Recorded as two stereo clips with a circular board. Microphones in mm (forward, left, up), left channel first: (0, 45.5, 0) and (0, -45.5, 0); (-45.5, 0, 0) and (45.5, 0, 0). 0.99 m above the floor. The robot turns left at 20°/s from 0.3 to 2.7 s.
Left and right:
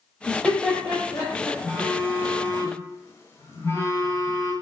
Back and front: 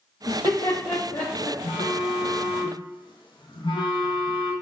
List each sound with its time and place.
0.3 s laughter: 175° left, 0.8 m; by 1.5 s 150° left, 0.8 m
1.6 s a phone buzzing: 170° left, 0.7 m; by 4.5 s 150° left, 0.7 m